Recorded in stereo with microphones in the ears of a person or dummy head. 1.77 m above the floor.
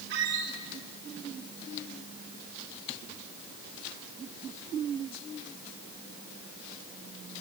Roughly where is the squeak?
Right.